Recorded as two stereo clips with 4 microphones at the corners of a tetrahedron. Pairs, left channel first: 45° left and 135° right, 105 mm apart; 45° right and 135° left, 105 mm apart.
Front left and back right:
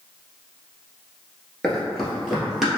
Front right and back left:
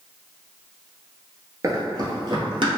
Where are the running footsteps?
120° left, 1.0 m; by 2.8 s 140° left, 1.5 m.